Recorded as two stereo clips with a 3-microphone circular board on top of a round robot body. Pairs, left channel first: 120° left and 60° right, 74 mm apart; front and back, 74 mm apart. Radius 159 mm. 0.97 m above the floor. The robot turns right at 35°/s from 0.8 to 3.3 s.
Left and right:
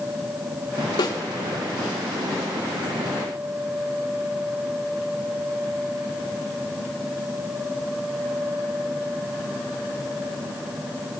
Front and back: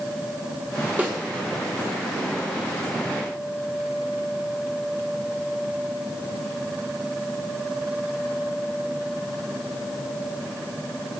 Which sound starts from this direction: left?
A snare drum, at 1.0 s.